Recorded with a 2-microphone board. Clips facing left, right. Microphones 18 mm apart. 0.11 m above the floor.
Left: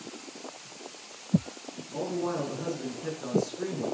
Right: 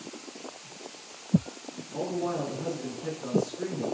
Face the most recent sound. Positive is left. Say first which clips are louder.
# even
turn(degrees=10)  # may be behind; listen again after turning